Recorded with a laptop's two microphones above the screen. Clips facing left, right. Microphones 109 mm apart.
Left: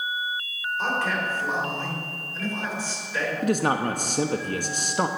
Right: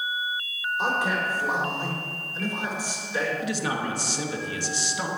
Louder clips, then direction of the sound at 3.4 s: Left 5 dB; 50° left (ahead or behind).